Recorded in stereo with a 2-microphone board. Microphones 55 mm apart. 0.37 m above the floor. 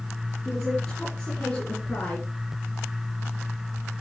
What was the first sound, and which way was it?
A woman speaking, 10° left (ahead or behind).